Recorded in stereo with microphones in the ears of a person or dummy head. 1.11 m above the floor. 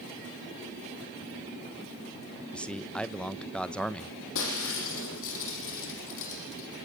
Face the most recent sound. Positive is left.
turn(degrees=60)  # may be behind; listen again after turning